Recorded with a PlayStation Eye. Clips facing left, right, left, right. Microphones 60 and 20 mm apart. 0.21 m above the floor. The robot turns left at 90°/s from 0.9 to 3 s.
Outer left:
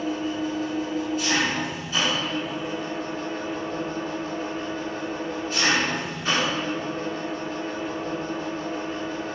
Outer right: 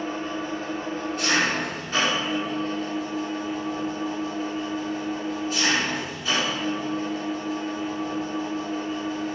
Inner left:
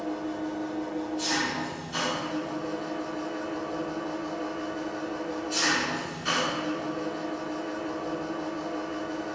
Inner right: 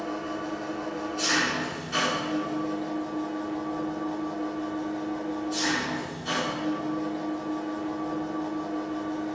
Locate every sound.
0.0 s an engine running: 40° right, 1.0 m; by 9.4 s 135° left, 1.0 m